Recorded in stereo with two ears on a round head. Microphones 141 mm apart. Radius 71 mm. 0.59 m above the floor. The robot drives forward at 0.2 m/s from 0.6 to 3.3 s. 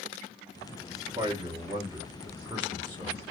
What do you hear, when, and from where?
1.1 s a man speaking: 30° right (ahead or behind), 1.1 m